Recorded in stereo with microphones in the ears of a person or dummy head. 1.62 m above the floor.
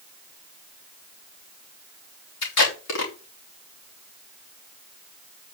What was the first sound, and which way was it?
Tape being pulled, 65° left (ahead or behind).